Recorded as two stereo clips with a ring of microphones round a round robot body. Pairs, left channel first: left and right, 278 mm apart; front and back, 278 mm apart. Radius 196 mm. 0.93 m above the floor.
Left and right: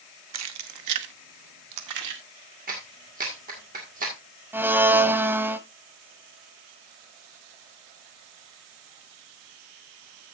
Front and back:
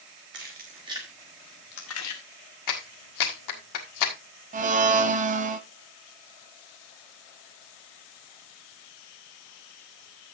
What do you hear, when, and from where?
0.3 s keys jangling: 115° right, 1.2 m; by 2.2 s 40° right, 0.9 m
2.7 s a clap: 20° right, 1.7 m
4.5 s a blender: 165° right, 0.8 m